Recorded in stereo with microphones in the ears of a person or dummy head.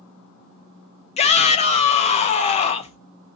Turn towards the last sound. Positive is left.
turn(degrees=30)  # may be behind; listen again after turning